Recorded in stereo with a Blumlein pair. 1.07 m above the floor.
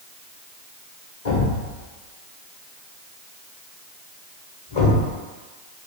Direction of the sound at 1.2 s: 60° left.